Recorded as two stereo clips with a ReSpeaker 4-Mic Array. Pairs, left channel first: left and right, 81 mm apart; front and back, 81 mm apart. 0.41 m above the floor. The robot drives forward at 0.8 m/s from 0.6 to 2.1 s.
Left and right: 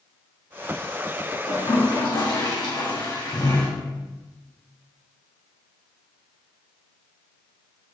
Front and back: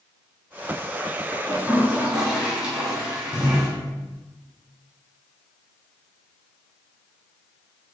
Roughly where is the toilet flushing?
Left.